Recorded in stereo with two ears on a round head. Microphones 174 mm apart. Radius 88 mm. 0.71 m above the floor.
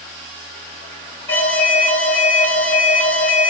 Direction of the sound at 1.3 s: 10° left (ahead or behind).